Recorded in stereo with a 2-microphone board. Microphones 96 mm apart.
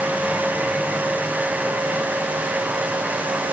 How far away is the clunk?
I don't hear a clunk.